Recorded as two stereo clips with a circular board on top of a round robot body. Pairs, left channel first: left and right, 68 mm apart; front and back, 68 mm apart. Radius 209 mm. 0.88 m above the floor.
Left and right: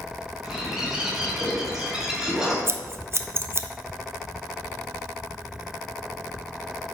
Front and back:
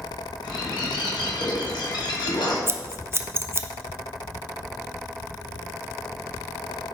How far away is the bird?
About 1.4 m.